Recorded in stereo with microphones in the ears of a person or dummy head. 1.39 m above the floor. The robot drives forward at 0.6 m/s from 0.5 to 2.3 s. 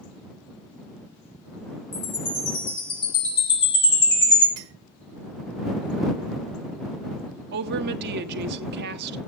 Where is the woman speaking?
60° right (ahead or behind), 1.4 m.